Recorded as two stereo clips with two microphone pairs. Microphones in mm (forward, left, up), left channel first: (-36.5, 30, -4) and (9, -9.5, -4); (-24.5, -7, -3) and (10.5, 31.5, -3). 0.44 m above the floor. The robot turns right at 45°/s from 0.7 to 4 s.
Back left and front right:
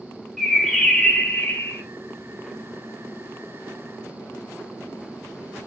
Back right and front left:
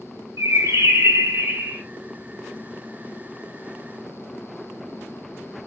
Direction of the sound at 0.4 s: 55° left.